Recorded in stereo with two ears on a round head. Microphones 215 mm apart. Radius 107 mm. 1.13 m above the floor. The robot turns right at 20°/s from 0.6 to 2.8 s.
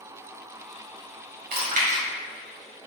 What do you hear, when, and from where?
1.5 s chewing: 40° right (ahead or behind), 3 m; by 2.0 s 30° right (ahead or behind), 3 m